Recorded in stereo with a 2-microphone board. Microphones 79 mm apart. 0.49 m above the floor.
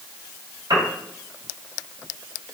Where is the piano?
55° right (ahead or behind), 2 m.